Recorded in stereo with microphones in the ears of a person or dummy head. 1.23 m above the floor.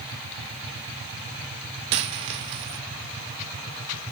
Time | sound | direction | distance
1.9 | a dropped coin | 20° right (ahead or behind) | 0.6 m